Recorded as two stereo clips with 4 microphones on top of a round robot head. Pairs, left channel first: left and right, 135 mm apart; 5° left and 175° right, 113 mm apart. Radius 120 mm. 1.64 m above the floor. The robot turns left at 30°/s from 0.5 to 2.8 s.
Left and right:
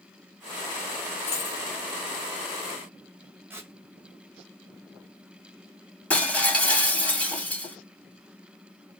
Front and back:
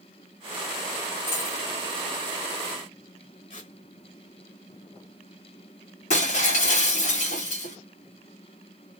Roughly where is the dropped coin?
Ahead left.